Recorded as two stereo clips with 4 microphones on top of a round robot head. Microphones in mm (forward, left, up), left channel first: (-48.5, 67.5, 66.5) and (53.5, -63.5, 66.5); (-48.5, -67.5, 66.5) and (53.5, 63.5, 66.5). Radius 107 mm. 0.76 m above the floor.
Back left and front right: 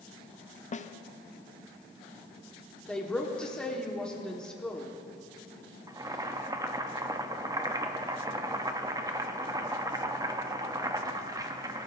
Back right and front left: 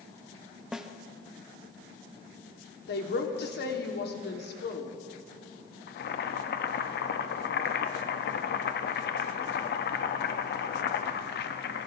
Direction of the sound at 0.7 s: 135° left.